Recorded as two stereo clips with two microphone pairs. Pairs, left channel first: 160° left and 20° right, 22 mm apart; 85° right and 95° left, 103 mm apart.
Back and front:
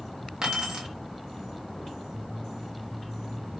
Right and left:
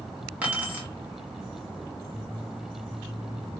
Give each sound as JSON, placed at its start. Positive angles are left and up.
{"t": 0.4, "sound": "keys jangling", "azimuth_deg": 20, "distance_m": 1.3}